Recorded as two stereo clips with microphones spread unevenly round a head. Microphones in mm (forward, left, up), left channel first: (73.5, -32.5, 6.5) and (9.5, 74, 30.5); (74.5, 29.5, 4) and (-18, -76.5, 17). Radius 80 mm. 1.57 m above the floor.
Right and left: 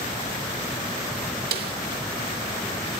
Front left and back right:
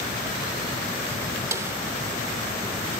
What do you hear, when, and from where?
1.5 s a snare drum: 155° left